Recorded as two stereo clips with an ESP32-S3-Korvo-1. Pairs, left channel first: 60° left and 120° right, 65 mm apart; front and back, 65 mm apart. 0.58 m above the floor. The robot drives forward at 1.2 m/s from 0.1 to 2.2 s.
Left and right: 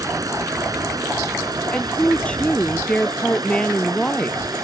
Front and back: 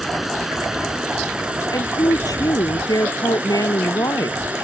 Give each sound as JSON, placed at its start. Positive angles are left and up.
{"t": 0.0, "sound": "running water", "azimuth_deg": -90}
{"t": 1.7, "sound": "a woman speaking", "azimuth_deg": -15}